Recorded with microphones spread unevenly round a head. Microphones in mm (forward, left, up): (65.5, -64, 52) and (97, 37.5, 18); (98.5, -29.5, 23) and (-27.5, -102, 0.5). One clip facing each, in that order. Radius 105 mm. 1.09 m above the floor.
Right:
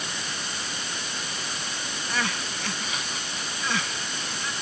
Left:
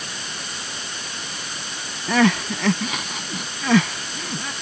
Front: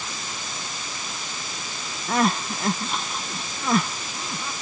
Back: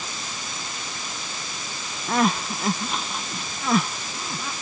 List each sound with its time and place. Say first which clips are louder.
2.1 s crying: left 13 dB, even; 120° left